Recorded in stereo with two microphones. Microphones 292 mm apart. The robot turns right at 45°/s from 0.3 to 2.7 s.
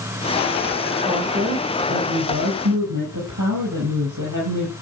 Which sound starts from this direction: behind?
A woman speaking, at 1.1 s.